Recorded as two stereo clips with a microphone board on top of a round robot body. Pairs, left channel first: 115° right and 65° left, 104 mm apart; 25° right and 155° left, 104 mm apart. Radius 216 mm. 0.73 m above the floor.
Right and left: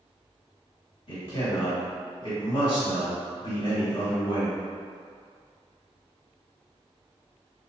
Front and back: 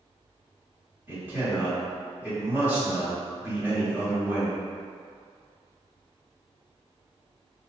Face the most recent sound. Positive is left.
turn(degrees=-135)